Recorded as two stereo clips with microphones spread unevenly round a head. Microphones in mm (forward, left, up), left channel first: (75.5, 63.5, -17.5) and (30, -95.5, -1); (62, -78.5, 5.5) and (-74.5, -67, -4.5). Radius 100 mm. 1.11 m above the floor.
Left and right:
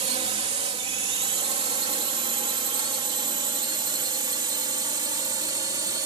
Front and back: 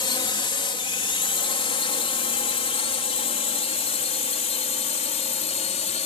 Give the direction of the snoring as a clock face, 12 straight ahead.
I don't hear snoring.